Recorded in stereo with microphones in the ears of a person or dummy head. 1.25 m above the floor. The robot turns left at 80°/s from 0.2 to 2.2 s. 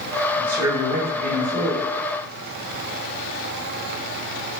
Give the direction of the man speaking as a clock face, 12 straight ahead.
12 o'clock.